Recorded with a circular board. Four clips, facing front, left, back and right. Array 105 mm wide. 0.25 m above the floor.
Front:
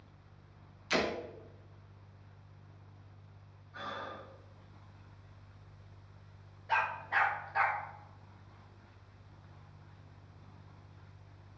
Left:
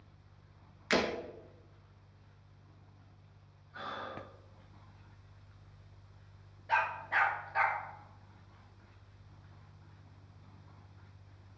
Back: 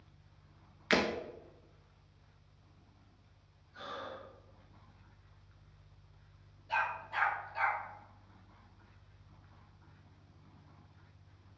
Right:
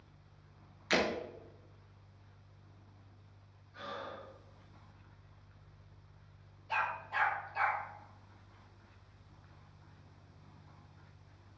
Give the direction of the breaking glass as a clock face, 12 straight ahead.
7 o'clock.